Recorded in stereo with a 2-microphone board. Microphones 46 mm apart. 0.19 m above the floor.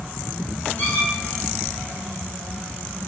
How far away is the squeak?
About 4 m.